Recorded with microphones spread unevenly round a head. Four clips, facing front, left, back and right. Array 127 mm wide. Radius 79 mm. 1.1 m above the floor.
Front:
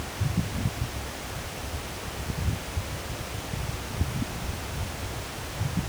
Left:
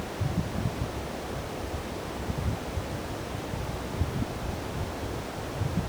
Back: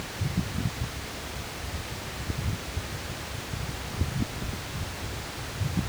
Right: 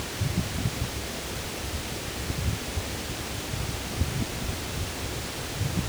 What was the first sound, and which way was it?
Only background noise.